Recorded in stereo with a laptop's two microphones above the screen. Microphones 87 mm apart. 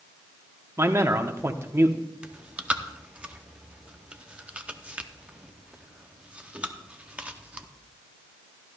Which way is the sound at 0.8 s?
30° right (ahead or behind).